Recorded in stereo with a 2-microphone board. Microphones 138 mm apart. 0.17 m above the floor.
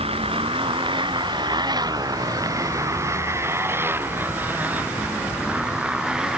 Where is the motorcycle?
45° right (ahead or behind); by 6.4 s 5° right (ahead or behind).